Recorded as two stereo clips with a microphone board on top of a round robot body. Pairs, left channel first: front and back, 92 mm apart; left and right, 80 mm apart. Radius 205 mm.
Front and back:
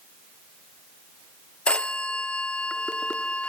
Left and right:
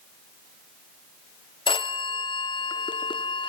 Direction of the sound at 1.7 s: 80° left.